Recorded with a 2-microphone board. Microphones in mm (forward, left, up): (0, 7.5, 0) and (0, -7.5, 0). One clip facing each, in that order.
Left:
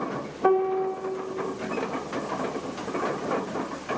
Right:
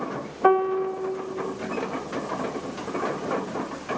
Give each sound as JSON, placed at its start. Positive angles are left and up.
{"t": 0.4, "sound": "a piano", "side_deg": -40, "distance_m": 2.0}